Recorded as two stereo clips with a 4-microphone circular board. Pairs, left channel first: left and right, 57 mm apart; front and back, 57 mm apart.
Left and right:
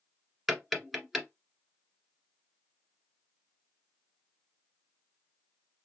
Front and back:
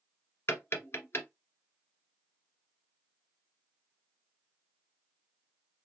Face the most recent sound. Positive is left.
turn(degrees=-10)